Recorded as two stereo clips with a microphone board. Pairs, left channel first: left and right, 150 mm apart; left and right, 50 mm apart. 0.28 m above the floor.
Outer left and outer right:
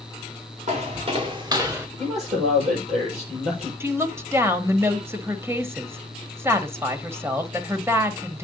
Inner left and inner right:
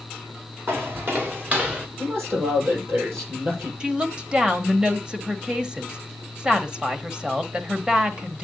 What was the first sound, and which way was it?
Footsteps, 50° right (ahead or behind).